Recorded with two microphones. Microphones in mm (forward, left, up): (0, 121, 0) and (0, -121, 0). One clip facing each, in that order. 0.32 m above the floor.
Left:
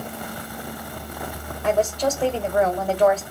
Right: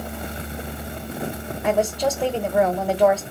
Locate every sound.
1.6 s a woman speaking: 10° right (ahead or behind), 1.1 m